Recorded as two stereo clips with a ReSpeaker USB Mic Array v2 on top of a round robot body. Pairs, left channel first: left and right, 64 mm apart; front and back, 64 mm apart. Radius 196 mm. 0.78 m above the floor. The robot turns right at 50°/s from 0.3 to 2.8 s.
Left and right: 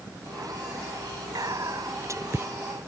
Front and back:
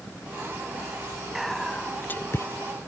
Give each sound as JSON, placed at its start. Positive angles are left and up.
{"t": 1.4, "sound": "whispering", "azimuth_deg": -95}